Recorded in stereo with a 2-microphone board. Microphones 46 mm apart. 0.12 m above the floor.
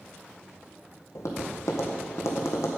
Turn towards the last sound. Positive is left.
turn(degrees=80)